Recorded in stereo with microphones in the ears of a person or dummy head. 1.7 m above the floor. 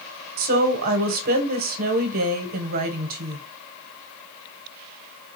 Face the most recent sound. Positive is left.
turn(degrees=-45)  # may be behind; listen again after turning